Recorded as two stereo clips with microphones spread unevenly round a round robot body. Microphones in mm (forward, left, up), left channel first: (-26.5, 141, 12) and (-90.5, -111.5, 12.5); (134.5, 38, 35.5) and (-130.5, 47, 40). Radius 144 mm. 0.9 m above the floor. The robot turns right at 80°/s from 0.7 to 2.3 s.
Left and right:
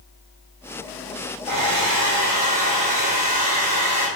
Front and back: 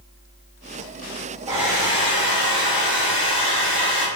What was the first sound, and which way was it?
A hair dryer, 110° right.